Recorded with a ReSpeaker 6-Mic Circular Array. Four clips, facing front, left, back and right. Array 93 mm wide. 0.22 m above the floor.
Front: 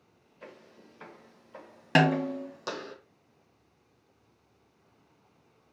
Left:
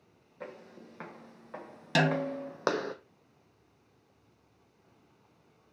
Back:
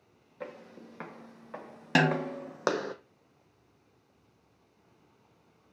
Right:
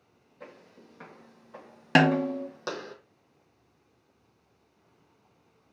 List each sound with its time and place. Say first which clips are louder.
0.4 s footsteps: left 4 dB, back 7 dB; 155° left, 1.8 m; by 3.0 s 130° left, 0.7 m
1.9 s a snare drum: right 6 dB, front 3 dB; 80° right, 0.6 m